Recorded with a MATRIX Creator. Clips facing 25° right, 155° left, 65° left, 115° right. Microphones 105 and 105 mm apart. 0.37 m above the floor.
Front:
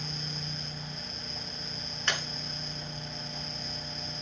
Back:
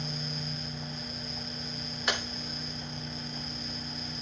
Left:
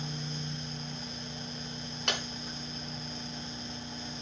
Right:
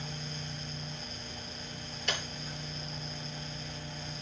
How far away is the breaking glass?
About 3 m.